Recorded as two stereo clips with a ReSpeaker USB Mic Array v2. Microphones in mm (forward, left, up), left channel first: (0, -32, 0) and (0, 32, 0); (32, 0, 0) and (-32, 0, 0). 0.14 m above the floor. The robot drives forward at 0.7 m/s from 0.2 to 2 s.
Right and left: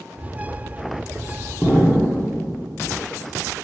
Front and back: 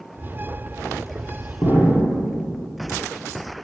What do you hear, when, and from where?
1.6 s an explosion: 25° right, 2 m